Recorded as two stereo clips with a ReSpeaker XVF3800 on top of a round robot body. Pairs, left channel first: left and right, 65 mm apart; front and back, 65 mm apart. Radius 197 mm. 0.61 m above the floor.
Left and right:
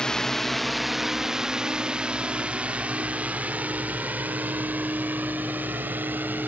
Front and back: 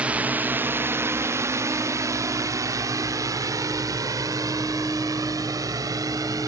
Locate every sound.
0.0 s a drone: 150° left; by 6.5 s 150° right